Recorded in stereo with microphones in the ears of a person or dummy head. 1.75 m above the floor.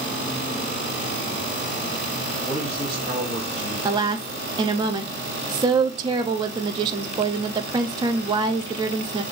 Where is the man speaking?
5° right (ahead or behind), 2.5 m.